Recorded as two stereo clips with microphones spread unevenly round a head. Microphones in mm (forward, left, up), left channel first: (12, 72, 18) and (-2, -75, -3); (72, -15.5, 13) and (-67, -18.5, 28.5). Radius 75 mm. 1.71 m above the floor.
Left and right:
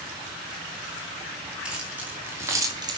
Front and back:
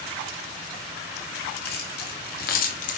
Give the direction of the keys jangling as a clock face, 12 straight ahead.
12 o'clock.